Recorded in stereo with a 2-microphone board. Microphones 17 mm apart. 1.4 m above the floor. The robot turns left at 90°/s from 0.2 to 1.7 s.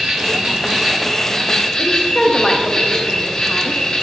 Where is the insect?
90° right, 1.9 m; by 4.0 s 135° left, 1.9 m.